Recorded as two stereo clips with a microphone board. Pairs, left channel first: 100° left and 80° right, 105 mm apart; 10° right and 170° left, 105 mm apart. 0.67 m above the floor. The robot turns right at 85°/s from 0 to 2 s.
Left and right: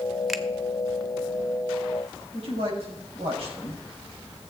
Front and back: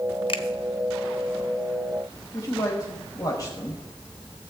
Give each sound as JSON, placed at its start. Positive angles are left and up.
{"t": 0.3, "sound": "a finger snap", "azimuth_deg": 5, "distance_m": 0.8}
{"t": 2.3, "sound": "a man speaking", "azimuth_deg": -65, "distance_m": 4.5}